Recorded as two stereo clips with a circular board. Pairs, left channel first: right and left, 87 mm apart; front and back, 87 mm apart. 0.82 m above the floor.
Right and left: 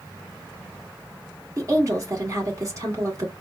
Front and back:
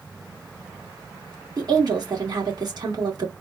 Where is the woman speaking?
140° left, 1.8 m.